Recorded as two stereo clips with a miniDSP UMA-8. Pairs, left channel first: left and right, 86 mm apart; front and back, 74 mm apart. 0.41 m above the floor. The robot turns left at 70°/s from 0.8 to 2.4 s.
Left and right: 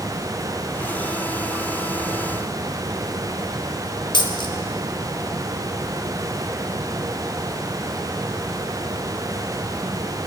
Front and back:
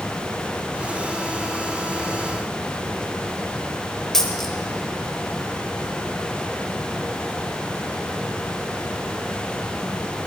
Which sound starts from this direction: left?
A dropped coin, at 4.1 s.